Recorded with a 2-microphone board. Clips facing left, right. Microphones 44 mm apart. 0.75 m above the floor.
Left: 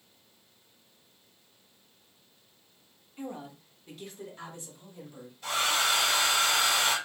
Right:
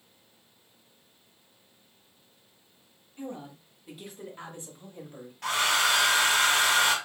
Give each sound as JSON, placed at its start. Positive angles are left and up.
{"t": 3.2, "sound": "a woman speaking", "side_deg": 15, "distance_m": 1.1}
{"t": 5.4, "sound": "a hair dryer", "side_deg": -75, "distance_m": 1.7}